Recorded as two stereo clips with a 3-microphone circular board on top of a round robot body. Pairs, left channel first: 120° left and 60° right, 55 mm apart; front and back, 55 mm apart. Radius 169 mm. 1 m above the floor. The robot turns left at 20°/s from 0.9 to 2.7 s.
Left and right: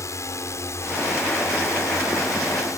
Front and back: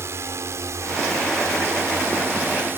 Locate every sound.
0.0 s a drone: 145° left; by 2.8 s 135° left